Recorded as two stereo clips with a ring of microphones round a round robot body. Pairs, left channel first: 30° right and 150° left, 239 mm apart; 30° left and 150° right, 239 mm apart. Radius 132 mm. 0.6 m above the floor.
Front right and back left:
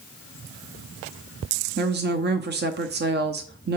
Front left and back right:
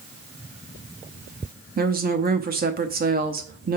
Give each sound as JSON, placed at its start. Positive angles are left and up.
{"t": 1.8, "sound": "a woman speaking", "azimuth_deg": 175, "distance_m": 0.8}